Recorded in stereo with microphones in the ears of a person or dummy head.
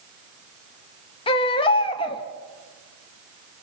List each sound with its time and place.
1.3 s a baby crying: 30° left (ahead or behind), 1.4 m